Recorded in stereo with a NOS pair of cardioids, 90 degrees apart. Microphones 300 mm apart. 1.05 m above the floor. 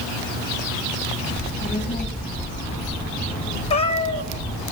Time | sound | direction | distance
1.3 | a child speaking | 25° left | 8 m
3.7 | a cat meowing | 20° left | 1.6 m